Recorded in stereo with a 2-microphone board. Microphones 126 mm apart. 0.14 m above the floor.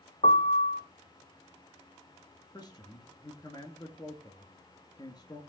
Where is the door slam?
I don't hear a door slam.